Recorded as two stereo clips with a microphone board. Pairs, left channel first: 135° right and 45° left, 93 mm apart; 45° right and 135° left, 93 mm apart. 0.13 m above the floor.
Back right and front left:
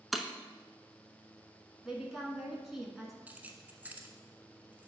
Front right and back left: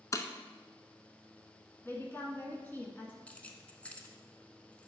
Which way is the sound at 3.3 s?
5° left.